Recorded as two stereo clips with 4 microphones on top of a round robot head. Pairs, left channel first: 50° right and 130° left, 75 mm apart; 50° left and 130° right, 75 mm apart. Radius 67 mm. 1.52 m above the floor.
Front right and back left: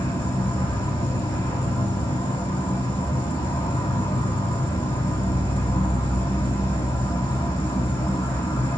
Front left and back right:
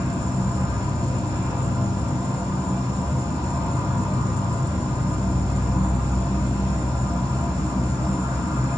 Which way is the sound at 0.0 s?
25° right.